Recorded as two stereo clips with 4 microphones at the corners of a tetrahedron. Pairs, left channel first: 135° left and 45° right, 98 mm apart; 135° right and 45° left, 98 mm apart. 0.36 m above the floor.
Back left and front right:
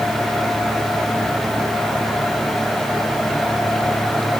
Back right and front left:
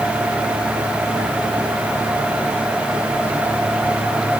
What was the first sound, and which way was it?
Only background noise.